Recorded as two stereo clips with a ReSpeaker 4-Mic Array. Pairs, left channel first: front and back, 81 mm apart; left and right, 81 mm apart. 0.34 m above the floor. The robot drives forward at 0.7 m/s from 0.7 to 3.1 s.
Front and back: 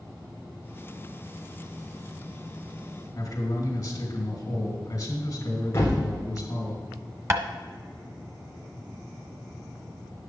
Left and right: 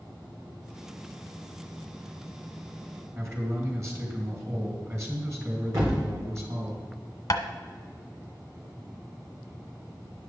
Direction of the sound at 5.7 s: 55° right.